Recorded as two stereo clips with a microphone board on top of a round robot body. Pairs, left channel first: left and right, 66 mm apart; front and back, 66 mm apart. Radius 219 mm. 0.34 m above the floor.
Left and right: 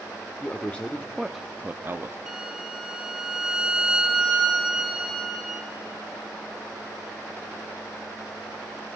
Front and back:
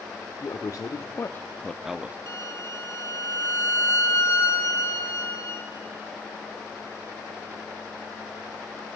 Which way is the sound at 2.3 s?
15° right.